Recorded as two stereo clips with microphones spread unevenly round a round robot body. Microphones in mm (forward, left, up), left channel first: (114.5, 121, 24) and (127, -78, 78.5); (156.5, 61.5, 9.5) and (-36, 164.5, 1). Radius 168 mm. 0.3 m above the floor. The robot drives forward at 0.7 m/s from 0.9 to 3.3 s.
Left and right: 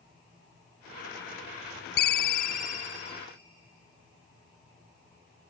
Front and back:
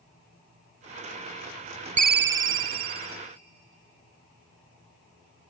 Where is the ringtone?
95° left, 0.5 m; by 3.2 s 155° left, 1.0 m.